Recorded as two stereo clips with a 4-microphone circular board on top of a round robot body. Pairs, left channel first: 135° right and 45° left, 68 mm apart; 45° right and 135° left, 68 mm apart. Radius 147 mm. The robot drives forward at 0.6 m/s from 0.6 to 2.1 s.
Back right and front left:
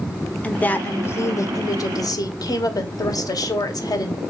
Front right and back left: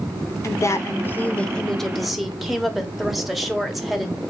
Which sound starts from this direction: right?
A woman speaking, at 0.4 s.